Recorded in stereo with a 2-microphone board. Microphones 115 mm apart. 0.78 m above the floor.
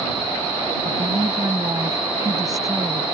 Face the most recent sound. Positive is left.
turn(degrees=-30)  # may be behind; listen again after turning